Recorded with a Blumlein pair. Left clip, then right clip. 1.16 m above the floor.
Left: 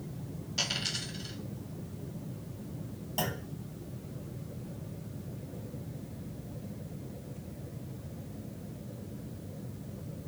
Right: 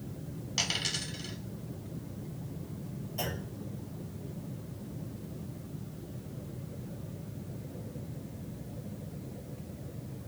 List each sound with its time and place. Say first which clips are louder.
0.6 s a dropped coin: right 1 dB; 65° right, 1.5 m
3.2 s a clunk: left 2 dB; 40° left, 1.2 m